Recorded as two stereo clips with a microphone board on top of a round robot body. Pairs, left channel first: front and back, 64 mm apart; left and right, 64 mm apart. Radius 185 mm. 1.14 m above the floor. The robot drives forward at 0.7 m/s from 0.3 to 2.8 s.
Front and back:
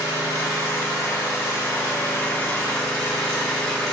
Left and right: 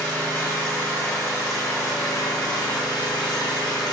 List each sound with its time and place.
0.0 s an engine running: 30° left, 2.5 m; by 3.9 s 75° left, 1.4 m